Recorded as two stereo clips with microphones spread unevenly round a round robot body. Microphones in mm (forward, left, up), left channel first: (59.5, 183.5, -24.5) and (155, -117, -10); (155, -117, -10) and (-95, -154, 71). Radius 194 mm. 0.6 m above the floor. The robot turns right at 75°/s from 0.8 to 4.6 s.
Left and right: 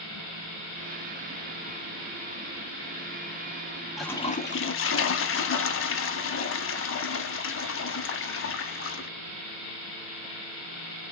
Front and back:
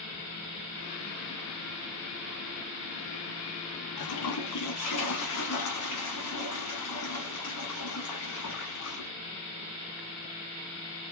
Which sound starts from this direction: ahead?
A toilet flushing, at 4.0 s.